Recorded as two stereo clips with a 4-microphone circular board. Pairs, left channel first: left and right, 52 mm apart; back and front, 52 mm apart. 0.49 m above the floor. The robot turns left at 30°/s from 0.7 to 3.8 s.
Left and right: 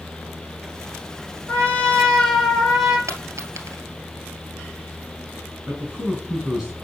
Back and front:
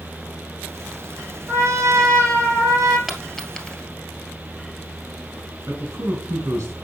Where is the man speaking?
15° right, 4.5 m.